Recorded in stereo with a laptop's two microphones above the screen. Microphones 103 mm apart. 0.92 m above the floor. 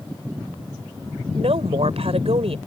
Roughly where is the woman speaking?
Right.